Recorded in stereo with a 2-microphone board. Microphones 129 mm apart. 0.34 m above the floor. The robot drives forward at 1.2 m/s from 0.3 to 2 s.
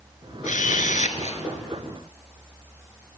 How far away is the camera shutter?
About 1.1 m.